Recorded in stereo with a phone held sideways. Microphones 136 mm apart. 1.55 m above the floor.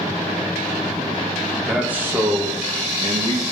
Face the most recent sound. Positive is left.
turn(degrees=-45)  # may be behind; listen again after turning